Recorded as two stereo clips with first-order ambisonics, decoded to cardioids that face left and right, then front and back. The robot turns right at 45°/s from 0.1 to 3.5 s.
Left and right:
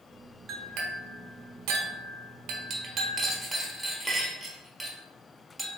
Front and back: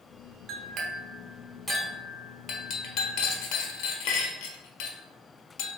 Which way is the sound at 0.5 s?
140° right.